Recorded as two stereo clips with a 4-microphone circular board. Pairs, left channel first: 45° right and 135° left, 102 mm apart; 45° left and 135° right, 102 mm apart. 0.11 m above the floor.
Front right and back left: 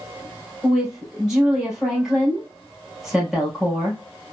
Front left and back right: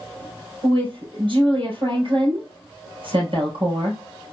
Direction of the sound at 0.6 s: 145° right.